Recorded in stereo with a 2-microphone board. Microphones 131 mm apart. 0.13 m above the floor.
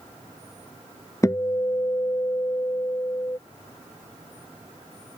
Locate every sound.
1.2 s a guitar: 25° left (ahead or behind)